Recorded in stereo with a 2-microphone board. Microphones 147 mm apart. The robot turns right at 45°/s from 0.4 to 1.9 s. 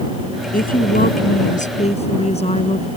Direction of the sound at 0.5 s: 70° left.